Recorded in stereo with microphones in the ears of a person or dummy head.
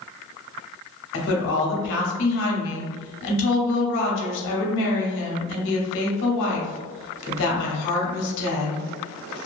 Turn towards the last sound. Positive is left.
turn(degrees=70)  # may be behind; listen again after turning